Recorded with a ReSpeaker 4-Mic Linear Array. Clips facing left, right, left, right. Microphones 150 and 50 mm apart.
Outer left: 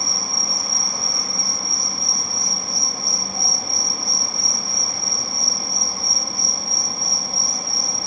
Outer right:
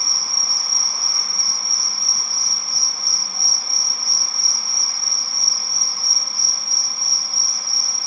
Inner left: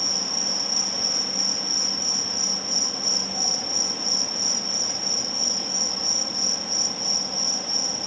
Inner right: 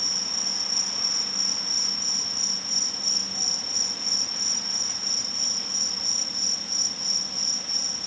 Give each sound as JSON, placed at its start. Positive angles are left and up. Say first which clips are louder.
{"t": 0.0, "sound": "an insect", "louder": "outer left 5 dB, inner left 5 dB", "side_deg": 45}